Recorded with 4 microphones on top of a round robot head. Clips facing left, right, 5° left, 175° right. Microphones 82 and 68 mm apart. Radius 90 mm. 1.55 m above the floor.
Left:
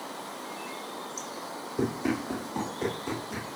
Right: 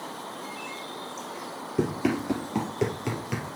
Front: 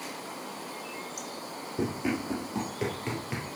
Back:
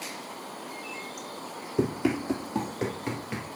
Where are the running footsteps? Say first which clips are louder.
Right 3 dB, back 4 dB; 140° right, 2 m; by 3.6 s 75° right, 2 m.